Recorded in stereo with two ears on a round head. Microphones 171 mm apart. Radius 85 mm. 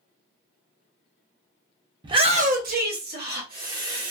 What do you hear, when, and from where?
2.0 s a shout: 25° right (ahead or behind), 0.8 m; by 4.1 s 45° right (ahead or behind), 1.6 m